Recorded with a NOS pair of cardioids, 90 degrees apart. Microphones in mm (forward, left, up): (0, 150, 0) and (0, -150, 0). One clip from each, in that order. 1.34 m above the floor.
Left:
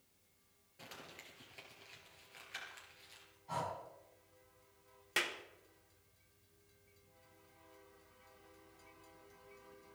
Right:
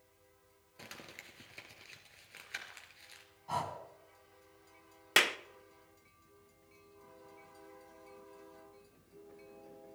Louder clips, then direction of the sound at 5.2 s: Right 9 dB; 55° right.